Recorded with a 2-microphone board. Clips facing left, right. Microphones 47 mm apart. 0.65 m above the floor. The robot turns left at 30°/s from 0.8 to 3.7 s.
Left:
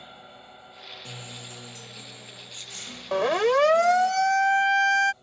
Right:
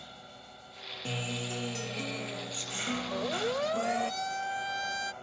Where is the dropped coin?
No dropped coin in this recording.